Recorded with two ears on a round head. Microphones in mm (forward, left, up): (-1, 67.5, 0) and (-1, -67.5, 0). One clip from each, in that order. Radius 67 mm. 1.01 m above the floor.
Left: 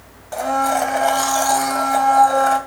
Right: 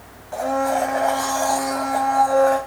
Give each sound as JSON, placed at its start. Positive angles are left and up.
{"t": 0.3, "sound": "a blender", "side_deg": 65, "distance_m": 2.5}